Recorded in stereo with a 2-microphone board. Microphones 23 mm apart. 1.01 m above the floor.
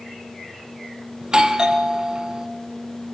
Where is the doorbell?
30° right (ahead or behind), 1.3 m.